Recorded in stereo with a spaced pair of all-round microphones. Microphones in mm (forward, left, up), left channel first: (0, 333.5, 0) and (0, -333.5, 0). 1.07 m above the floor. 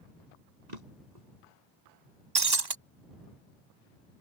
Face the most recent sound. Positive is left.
turn(degrees=-35)  # may be behind; listen again after turning